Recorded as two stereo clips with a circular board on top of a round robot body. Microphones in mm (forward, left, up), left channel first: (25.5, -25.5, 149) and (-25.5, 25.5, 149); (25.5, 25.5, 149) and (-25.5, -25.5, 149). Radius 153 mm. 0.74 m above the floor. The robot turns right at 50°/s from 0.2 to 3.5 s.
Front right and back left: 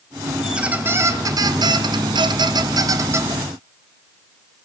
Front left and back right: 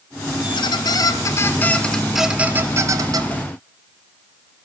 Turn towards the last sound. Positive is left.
turn(degrees=-155)